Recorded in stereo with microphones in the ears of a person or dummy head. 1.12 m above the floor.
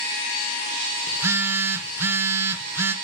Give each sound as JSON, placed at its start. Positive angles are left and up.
{"t": 1.1, "sound": "a phone buzzing", "side_deg": -15, "distance_m": 0.6}